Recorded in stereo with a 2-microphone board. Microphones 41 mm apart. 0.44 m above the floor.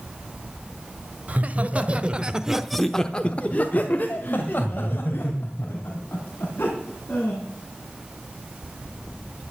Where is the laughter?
40° right (ahead or behind), 1.7 m; by 7.4 s 55° left (ahead or behind), 4.5 m.